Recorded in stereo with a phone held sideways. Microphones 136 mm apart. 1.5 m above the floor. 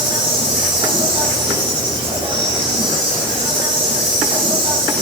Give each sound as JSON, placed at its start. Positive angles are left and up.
{"t": 0.0, "sound": "an insect", "side_deg": -40, "distance_m": 6.0}